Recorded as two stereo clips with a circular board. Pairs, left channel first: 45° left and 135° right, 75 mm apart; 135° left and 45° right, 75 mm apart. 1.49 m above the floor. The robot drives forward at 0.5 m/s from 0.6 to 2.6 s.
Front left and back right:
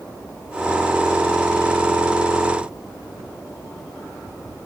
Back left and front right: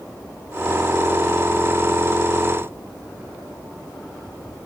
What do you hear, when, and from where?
Only background noise.